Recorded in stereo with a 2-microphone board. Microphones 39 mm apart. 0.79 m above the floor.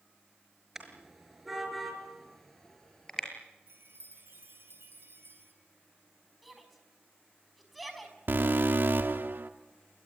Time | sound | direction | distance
0.8 | a car horn | 10° right (ahead or behind) | 5.5 m
3.7 | a chime | 70° right (ahead or behind) | 5 m
6.4 | a shout | centre (ahead or behind) | 5.5 m
8.3 | an alarm | 65° right (ahead or behind) | 1.6 m